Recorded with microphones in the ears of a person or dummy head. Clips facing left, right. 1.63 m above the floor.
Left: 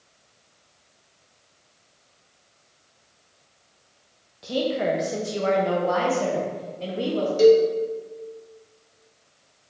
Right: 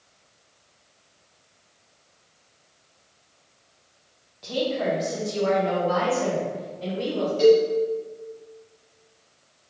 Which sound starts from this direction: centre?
A woman speaking, at 4.4 s.